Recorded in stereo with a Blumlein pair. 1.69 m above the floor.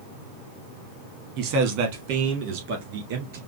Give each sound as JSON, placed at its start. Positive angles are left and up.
{"t": 1.4, "sound": "a man speaking", "azimuth_deg": -45, "distance_m": 1.3}